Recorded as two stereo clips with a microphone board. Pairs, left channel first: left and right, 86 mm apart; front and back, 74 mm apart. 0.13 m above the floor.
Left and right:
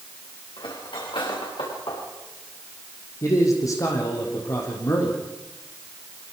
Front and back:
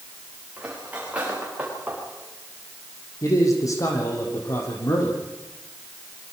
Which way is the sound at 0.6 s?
110° left.